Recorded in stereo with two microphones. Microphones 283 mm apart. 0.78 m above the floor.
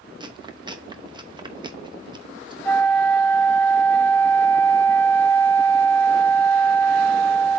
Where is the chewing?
15° right (ahead or behind), 0.9 m.